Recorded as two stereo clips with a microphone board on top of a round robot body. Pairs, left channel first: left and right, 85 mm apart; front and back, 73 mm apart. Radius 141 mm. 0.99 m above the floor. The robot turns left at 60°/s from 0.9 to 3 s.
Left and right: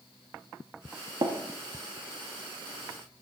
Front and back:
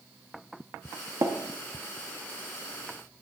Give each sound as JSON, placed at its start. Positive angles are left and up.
{"t": 1.2, "sound": "tapping", "azimuth_deg": -130, "distance_m": 1.1}